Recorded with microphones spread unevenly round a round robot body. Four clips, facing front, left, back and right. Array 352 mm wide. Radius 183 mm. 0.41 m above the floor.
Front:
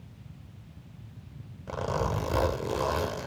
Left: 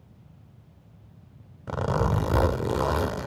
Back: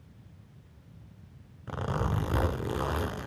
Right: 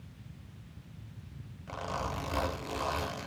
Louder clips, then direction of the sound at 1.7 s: Left 10 dB, front 3 dB; 85° left.